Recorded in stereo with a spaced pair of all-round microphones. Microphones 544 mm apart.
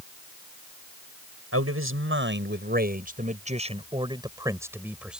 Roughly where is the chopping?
I don't hear chopping.